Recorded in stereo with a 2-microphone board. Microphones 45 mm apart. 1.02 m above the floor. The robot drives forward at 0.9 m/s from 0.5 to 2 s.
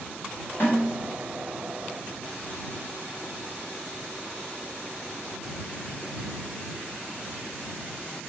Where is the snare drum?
45° left (ahead or behind), 5.5 m; by 0.9 s 50° left (ahead or behind), 5.5 m.